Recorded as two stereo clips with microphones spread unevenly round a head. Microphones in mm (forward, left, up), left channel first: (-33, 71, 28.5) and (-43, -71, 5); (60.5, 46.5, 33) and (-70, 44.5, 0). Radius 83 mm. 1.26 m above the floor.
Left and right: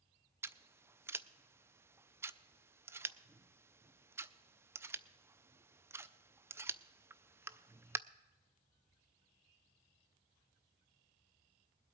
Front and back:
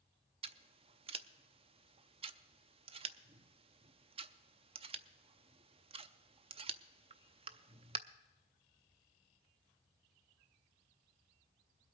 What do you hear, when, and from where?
0.4 s scissors: 160° right, 0.5 m